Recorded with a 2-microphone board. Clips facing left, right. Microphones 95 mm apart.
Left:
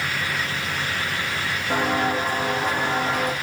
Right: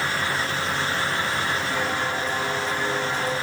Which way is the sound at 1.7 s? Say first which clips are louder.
Left 4 dB; 45° left (ahead or behind).